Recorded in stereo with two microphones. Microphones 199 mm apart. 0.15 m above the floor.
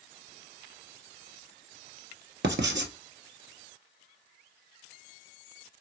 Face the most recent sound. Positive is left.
turn(degrees=-65)  # may be behind; listen again after turning